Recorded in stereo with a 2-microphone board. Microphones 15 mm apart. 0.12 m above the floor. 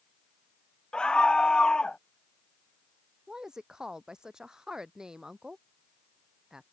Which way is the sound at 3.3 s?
40° right (ahead or behind).